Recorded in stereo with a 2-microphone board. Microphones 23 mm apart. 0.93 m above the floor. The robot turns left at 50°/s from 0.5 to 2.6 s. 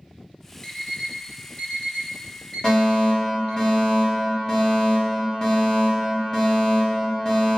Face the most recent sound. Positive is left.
turn(degrees=30)  # may be behind; listen again after turning